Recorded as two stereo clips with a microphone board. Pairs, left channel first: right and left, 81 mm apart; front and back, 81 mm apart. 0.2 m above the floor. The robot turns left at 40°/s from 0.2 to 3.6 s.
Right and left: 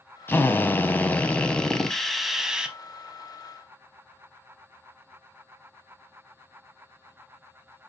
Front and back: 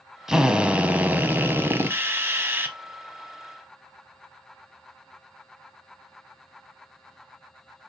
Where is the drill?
105° right, 0.7 m; by 2.8 s 155° left, 0.7 m.